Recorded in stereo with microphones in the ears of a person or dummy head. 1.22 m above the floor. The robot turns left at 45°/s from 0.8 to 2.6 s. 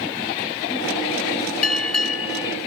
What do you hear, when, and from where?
1.6 s a bell: 110° left; by 2.6 s 65° left